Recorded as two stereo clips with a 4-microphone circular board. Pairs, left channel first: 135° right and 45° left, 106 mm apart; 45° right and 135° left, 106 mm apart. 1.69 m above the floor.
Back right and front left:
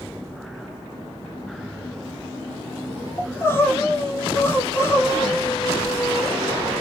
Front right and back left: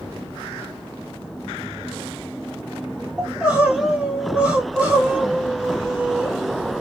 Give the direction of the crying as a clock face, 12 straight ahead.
5 o'clock.